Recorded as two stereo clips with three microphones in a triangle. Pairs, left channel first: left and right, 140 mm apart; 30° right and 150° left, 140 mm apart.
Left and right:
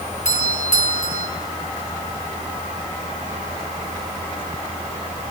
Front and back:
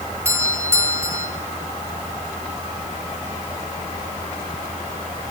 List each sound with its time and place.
0.2 s a doorbell: 80° left, 4 m